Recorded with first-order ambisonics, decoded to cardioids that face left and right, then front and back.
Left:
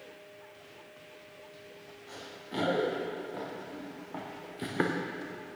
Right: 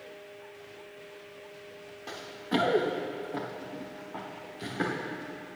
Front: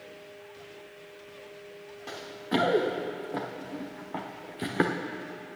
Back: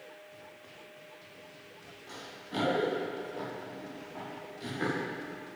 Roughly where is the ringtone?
I don't hear a ringtone.